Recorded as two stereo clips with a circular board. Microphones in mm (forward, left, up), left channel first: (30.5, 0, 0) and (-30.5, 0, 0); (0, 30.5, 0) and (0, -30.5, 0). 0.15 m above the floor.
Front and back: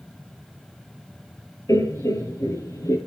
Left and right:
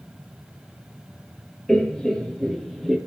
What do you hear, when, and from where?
1.7 s laughter: 10° left, 3 m; by 3.0 s 5° left, 3.5 m